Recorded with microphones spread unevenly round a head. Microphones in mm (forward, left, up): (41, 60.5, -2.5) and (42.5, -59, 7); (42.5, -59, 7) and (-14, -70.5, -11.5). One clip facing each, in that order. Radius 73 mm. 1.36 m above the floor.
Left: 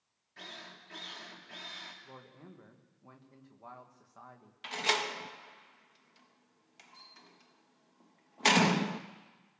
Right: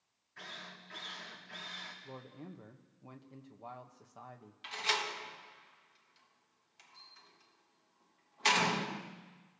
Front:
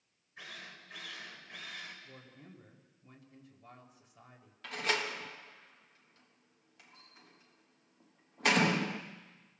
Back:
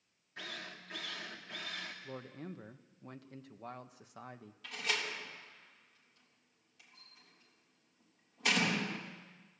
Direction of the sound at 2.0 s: 165° right.